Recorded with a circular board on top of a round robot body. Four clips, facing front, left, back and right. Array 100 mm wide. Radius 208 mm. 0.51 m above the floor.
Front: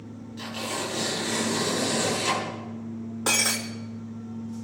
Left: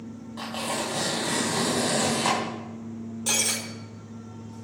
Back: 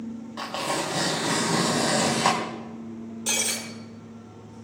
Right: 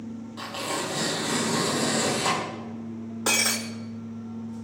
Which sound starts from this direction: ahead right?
Breaking glass, at 3.3 s.